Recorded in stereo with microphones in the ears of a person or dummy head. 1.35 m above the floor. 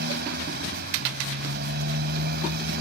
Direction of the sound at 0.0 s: 60° right (ahead or behind).